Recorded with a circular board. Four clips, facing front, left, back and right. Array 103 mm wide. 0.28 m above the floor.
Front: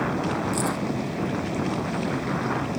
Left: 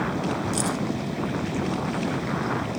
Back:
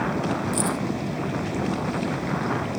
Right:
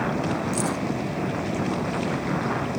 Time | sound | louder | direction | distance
0.5 | keys jangling | right 1 dB, back 1 dB | 95° left | 2 m